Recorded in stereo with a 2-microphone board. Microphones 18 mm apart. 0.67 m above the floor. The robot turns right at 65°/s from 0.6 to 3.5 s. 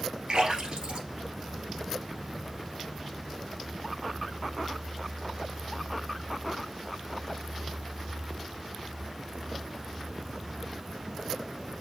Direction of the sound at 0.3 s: 60° right (ahead or behind).